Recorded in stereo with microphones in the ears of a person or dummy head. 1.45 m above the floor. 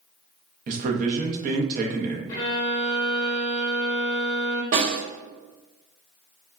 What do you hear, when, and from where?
0.7 s a man speaking: 50° right (ahead or behind), 0.8 m
2.3 s a violin: 20° left (ahead or behind), 1.0 m
4.7 s a snare drum: 55° right (ahead or behind), 1.7 m